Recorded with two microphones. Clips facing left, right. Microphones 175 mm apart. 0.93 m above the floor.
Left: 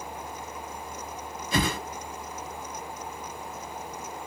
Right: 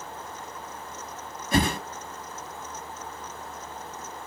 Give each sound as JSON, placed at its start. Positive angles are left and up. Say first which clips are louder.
{"t": 1.5, "sound": "a whoosh", "louder": "right 3 dB", "side_deg": -50, "distance_m": 1.0}